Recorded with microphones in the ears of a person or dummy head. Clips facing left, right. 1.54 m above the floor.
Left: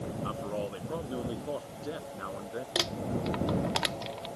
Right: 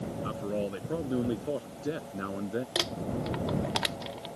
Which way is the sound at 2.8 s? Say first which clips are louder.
Even; 5° right (ahead or behind).